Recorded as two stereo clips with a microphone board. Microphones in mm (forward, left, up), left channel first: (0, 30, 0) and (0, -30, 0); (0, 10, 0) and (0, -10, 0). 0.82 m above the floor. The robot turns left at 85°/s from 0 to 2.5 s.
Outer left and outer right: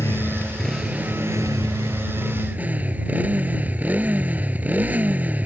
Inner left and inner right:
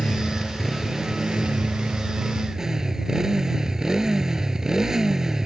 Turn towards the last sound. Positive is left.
turn(degrees=-155)